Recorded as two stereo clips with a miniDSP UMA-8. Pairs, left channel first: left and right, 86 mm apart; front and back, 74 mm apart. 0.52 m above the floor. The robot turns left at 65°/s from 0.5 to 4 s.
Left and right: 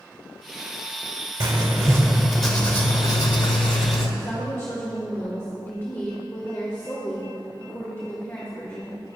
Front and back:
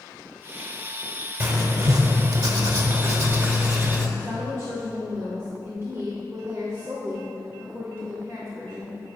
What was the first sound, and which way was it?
Writing, 115° right.